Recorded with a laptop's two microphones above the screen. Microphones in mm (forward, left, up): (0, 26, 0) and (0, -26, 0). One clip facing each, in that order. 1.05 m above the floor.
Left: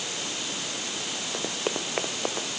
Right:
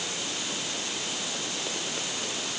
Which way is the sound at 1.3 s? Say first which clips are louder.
Left 4 dB; 50° left (ahead or behind).